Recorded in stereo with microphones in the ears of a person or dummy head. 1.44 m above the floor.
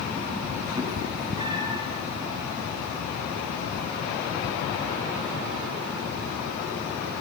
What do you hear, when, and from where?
0.8 s a cat meowing: 25° right (ahead or behind), 5.5 m